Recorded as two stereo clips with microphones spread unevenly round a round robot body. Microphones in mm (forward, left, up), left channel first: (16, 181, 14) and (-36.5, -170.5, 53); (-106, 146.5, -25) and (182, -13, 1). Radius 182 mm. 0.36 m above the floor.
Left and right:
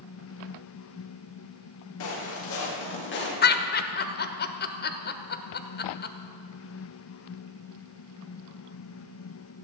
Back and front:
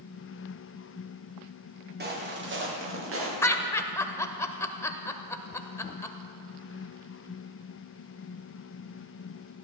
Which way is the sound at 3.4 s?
80° left.